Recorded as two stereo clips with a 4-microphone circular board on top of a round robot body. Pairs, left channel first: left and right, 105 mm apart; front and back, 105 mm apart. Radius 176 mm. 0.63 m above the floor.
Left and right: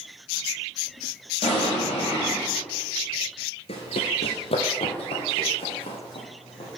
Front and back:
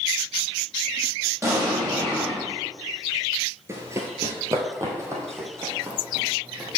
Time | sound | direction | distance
1.4 | an explosion | 120° left | 5 m
3.7 | running footsteps | 115° left | 0.8 m